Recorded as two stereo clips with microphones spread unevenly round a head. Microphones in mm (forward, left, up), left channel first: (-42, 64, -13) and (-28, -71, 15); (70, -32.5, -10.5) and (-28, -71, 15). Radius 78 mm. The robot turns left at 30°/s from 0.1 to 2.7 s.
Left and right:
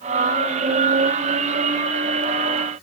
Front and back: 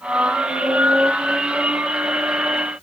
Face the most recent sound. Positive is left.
No sound to turn to.